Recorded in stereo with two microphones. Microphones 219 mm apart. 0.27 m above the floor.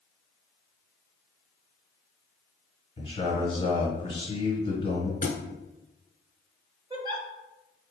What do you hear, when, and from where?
3.0 s a man speaking: 25° left (ahead or behind), 1.3 m
5.2 s a thud: 45° left (ahead or behind), 0.8 m
6.9 s a giggle: 20° right (ahead or behind), 0.8 m